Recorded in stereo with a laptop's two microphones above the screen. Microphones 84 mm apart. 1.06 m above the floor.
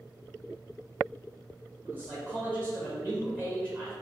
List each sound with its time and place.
1.9 s a man speaking: 25° right (ahead or behind), 1.0 m